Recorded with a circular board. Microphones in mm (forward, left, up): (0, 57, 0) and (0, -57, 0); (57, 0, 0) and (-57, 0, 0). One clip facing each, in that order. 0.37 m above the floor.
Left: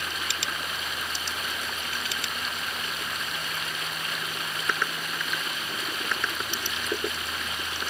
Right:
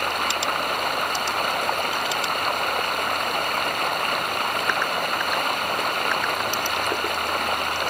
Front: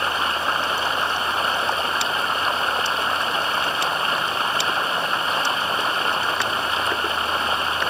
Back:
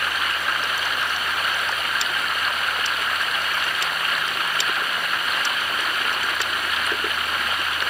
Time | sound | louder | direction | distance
0.0 | running water | right 10 dB, front 3 dB | 60° right | ?